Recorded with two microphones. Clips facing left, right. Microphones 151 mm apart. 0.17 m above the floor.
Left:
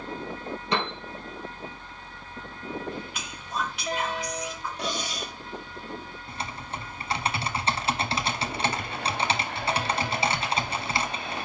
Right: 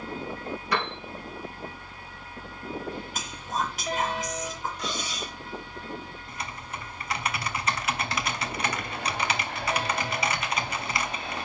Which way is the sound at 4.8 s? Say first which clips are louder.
Left 2 dB; 60° left (ahead or behind).